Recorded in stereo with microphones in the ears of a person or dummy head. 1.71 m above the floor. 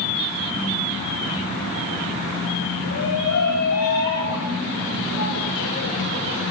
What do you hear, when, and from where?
2.9 s a shout: 65° left (ahead or behind), 4.5 m